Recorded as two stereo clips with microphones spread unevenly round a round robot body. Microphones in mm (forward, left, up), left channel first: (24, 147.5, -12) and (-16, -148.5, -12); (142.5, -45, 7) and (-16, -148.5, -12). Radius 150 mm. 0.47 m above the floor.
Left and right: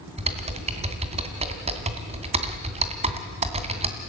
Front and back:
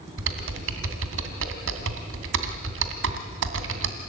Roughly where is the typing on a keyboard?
Behind.